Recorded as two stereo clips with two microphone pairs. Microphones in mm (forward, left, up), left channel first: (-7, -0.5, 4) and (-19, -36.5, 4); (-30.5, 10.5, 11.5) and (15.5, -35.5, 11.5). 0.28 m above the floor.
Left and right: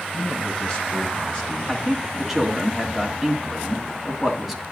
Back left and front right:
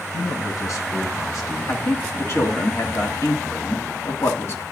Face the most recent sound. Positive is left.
turn(degrees=165)